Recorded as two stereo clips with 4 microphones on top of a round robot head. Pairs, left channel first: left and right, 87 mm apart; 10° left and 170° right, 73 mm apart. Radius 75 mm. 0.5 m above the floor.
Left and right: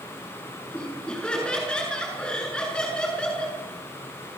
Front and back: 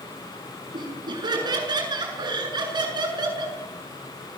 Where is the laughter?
170° left, 7.5 m.